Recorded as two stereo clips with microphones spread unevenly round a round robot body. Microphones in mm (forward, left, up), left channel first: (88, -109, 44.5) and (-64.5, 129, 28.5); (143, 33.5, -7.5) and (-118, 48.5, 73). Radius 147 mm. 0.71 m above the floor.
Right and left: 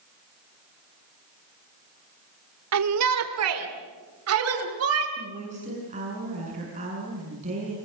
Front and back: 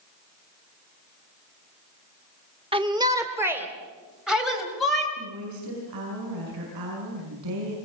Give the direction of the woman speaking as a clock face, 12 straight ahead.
6 o'clock.